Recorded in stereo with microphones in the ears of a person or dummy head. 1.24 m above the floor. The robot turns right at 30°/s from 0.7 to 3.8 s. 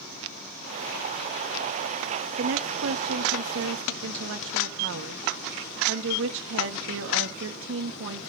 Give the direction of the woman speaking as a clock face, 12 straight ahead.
4 o'clock.